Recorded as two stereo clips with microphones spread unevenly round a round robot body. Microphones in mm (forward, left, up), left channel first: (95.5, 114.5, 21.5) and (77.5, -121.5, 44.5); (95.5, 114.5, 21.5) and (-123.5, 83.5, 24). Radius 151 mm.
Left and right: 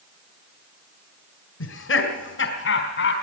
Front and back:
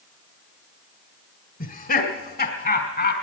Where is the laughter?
60° left, 2 m; by 3.1 s 50° left, 3 m.